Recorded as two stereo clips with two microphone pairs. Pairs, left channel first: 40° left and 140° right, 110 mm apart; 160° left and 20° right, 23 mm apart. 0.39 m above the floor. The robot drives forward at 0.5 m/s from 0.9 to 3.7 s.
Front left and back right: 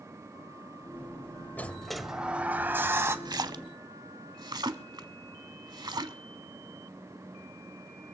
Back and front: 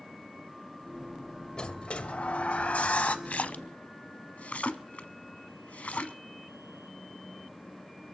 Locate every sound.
1.6 s a sliding door: 115° left, 0.5 m; by 3.1 s 155° left, 1.1 m
3.2 s a splash: 170° left, 0.5 m